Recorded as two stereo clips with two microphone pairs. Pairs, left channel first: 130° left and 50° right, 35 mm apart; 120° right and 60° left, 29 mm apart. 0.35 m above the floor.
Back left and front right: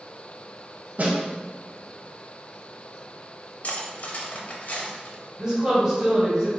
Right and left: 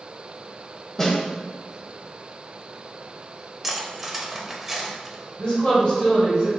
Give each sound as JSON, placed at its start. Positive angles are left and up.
{"t": 1.0, "sound": "a snare drum", "azimuth_deg": -55, "distance_m": 0.9}
{"t": 3.6, "sound": "cutlery clinking", "azimuth_deg": 135, "distance_m": 0.6}
{"t": 5.4, "sound": "a woman speaking", "azimuth_deg": -105, "distance_m": 1.8}